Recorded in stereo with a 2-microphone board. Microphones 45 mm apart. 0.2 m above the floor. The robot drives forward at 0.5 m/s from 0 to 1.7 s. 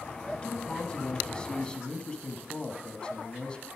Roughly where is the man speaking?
Left.